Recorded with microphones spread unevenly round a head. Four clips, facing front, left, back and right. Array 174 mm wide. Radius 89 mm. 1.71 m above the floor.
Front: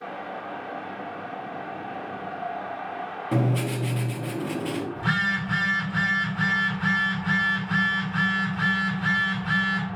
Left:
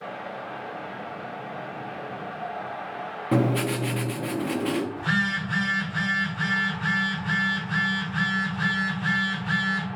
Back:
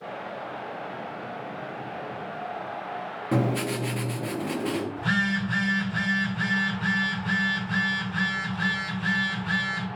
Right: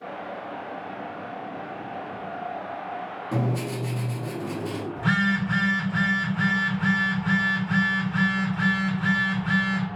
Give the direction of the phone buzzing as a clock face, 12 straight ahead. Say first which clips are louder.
Right 3 dB, even; 3 o'clock.